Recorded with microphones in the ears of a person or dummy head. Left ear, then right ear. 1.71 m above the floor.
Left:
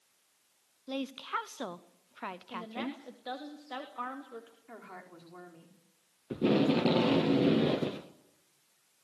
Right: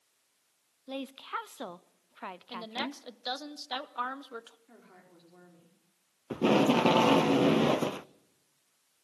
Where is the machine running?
I don't hear a machine running.